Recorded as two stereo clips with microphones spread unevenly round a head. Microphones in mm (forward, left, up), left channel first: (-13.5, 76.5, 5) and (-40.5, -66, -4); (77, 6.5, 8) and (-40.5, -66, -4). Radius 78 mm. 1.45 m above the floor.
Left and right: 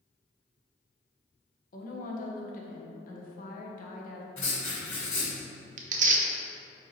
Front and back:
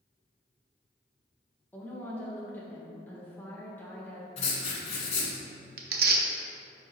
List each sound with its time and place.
1.7 s a woman speaking: 110° left, 1.2 m
4.4 s writing: 10° left, 1.7 m
5.8 s tearing paper: 135° right, 0.8 m